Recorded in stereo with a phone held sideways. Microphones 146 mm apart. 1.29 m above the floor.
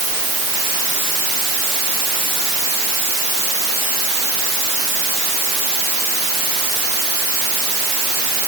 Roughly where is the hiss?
I don't hear a hiss.